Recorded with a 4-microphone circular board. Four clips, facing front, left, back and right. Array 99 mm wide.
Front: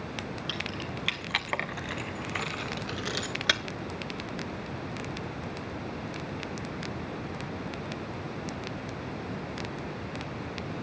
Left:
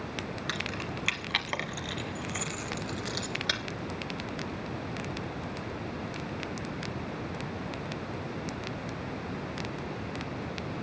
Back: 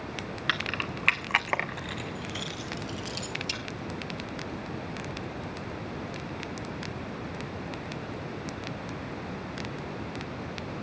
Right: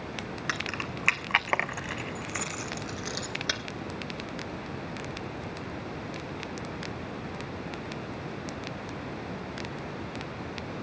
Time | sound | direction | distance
0.5 | keys jangling | 155° right | 1.8 m